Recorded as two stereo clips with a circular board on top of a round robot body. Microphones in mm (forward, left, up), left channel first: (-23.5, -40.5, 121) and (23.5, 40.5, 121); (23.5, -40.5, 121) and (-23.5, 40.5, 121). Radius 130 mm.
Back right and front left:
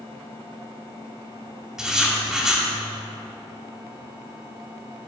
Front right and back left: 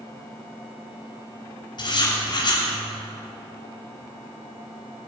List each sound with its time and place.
1.8 s writing: 25° right, 3 m